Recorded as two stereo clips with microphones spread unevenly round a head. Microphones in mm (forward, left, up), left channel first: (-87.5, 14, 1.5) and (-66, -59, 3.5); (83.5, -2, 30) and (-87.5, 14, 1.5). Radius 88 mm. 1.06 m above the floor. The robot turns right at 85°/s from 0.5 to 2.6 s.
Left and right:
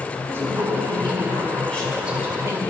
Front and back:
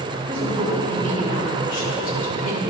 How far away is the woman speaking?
About 4 m.